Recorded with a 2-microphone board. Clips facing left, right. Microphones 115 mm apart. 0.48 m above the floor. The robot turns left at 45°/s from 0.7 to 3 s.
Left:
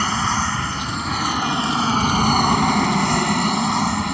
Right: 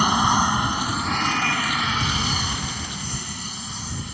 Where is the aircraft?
165° right; by 4.2 s 90° left.